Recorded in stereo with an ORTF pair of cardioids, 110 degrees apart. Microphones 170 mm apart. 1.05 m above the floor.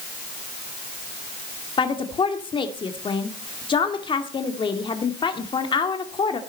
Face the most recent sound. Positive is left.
turn(degrees=30)